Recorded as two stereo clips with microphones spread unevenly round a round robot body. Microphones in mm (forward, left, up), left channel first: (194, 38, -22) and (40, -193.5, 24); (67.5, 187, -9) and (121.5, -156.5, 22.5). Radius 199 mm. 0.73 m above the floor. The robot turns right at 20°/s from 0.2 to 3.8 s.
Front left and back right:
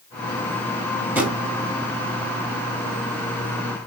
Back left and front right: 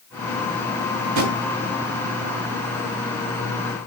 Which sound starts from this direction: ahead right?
A drawer, at 1.0 s.